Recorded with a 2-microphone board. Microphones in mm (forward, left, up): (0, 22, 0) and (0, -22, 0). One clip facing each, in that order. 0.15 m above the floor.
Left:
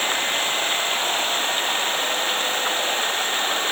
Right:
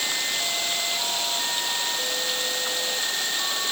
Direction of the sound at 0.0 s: 40° left (ahead or behind).